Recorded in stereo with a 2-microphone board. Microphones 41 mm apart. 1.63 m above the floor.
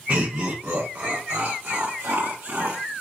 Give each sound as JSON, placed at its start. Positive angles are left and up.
{"t": 0.1, "sound": "laughter", "side_deg": -45, "distance_m": 0.9}